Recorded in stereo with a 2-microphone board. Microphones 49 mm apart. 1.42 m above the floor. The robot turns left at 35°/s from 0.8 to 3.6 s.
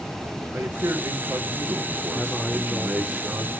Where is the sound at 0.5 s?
65° right, 1.0 m; by 3.1 s 150° right, 1.0 m.